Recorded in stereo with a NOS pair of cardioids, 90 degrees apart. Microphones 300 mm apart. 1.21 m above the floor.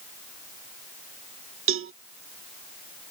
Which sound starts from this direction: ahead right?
A cowbell, at 1.7 s.